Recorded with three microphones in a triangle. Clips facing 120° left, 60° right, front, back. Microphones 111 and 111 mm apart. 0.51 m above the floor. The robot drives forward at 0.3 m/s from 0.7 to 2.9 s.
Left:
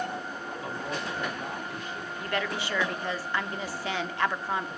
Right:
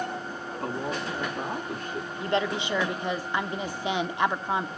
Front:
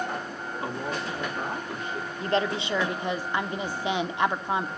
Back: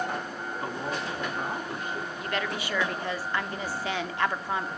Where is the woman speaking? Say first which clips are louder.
Right 5 dB, front 7 dB; 15° right, 0.9 m; by 4.7 s 30° right, 0.8 m.